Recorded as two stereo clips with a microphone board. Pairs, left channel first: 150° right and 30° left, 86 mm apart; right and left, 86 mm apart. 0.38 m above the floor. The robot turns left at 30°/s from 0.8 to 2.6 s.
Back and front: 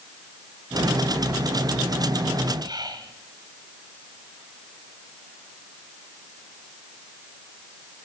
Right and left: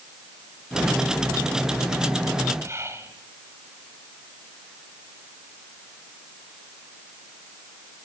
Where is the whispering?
40° left, 2 m.